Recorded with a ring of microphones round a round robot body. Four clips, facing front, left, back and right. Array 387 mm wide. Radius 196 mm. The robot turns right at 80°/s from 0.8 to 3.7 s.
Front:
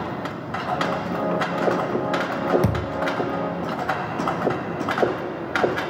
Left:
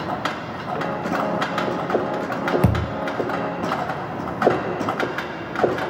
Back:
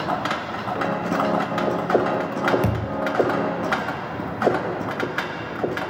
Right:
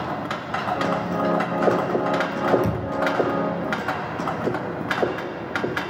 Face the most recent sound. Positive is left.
turn(degrees=160)